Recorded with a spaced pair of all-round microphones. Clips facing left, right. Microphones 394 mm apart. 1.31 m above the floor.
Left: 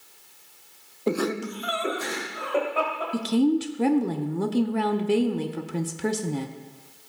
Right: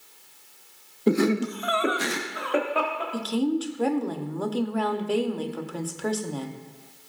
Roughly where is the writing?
No writing in this recording.